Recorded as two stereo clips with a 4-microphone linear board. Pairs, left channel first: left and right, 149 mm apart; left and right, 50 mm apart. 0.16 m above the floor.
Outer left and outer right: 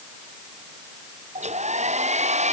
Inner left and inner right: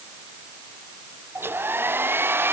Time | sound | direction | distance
1.4 | a hair dryer | 50° right (ahead or behind) | ?